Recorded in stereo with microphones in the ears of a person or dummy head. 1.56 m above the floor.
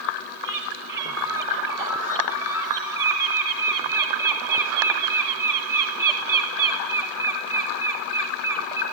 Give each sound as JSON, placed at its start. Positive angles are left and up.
{"t": 0.4, "sound": "a bird", "side_deg": -15, "distance_m": 1.6}